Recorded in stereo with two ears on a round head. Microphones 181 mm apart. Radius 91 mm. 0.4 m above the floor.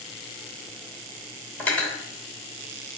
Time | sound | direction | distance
1.6 | cutlery clinking | 10° left (ahead or behind) | 0.8 m